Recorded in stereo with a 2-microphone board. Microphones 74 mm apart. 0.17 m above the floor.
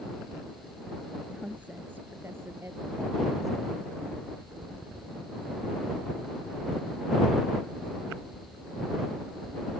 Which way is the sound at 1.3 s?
15° right (ahead or behind).